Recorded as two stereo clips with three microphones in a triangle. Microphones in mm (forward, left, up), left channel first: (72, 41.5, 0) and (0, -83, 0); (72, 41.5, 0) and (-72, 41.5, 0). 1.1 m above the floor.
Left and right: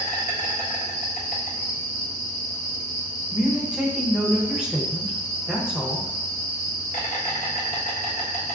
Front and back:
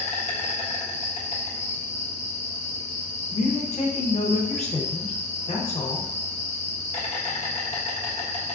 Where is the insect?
40° left, 1.2 m.